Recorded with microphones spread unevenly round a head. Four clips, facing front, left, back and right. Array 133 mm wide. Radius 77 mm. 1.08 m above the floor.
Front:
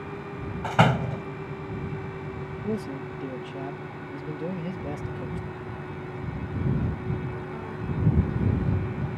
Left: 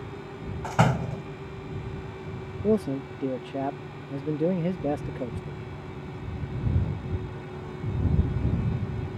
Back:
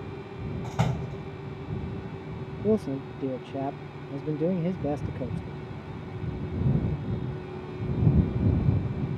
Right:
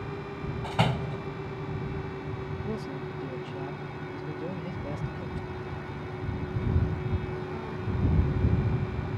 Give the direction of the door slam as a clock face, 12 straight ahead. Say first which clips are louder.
Left 4 dB, front 10 dB; 12 o'clock.